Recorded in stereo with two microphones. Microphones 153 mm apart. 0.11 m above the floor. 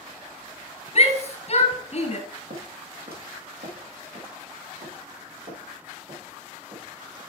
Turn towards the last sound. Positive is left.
turn(degrees=-60)  # may be behind; listen again after turning